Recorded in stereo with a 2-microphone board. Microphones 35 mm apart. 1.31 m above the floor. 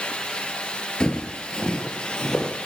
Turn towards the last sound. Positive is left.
turn(degrees=25)  # may be behind; listen again after turning